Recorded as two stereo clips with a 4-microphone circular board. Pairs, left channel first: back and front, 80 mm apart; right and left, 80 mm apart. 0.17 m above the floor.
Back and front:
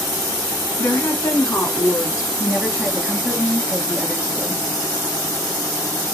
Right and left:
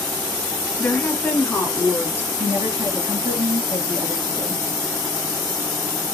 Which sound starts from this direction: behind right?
A woman speaking, at 0.8 s.